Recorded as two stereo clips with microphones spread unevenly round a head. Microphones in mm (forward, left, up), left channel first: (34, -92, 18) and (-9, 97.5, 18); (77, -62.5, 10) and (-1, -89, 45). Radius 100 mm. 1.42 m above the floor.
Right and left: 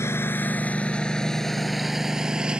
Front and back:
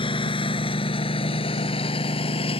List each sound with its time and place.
0.0 s a lawn mower: straight ahead; by 2.6 s 20° left